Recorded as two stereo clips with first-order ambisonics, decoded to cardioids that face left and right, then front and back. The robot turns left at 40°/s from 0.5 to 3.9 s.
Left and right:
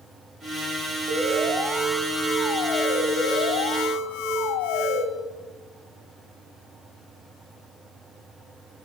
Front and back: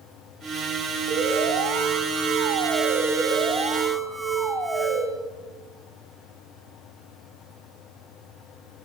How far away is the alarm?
About 1.7 m.